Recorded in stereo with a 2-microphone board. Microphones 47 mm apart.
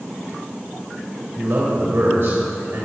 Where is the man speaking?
65° right (ahead or behind), 3 m.